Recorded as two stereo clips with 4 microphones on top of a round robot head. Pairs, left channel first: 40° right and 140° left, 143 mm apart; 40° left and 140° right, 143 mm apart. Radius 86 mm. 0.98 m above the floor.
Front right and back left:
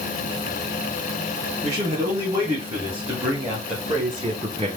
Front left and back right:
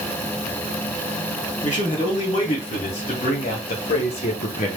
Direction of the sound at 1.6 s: 90° left.